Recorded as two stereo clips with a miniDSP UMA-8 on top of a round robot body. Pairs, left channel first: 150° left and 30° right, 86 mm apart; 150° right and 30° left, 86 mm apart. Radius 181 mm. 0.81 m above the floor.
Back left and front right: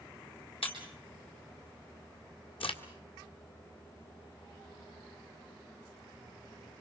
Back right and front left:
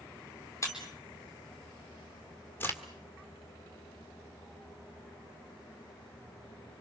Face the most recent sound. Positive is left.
turn(degrees=145)